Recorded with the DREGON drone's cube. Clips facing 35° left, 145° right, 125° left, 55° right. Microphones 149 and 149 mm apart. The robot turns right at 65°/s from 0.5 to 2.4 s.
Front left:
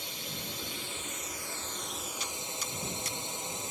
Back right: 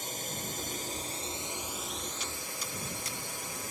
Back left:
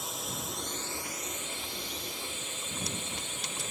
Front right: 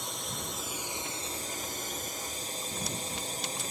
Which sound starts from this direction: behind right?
A drone, at 0.0 s.